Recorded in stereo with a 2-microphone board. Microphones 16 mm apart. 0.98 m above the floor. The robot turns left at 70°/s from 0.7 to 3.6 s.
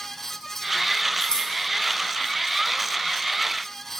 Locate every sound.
1.2 s scissors: 55° left (ahead or behind), 0.9 m; by 1.5 s 75° left (ahead or behind), 0.9 m